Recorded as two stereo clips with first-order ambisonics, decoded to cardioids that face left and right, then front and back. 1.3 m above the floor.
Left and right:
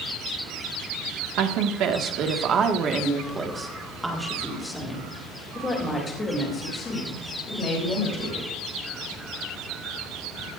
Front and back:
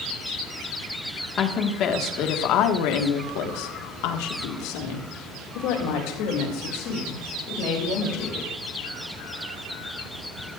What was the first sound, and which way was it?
A woman speaking, 60° right.